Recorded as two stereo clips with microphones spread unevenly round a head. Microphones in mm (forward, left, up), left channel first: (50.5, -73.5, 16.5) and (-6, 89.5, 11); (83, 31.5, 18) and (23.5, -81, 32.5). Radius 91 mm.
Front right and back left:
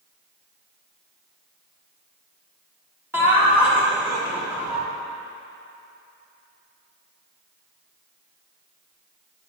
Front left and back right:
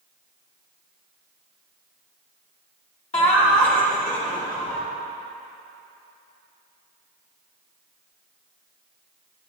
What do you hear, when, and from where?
3.1 s laughter: 30° left, 1.4 m